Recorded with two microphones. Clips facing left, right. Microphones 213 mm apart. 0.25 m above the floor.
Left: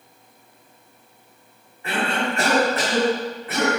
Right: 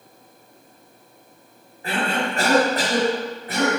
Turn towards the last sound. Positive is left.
turn(degrees=-40)  # may be behind; listen again after turning